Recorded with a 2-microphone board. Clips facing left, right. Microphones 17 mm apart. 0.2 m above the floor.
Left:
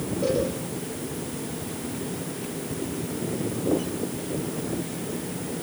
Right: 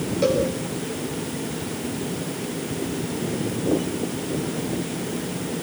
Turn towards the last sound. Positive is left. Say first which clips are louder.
# right 4 dB
turn(degrees=-55)  # may be behind; listen again after turning